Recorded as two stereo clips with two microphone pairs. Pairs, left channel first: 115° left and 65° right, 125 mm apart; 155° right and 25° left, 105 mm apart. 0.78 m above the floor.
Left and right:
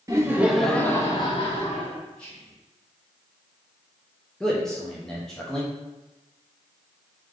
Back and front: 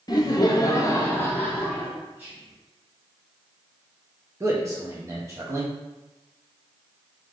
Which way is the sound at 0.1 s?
120° right.